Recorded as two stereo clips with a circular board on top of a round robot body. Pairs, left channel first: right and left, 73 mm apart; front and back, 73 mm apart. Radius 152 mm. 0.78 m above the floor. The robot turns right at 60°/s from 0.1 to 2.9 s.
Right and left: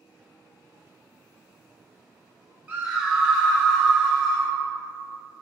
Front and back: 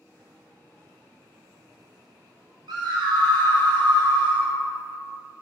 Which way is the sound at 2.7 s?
160° left.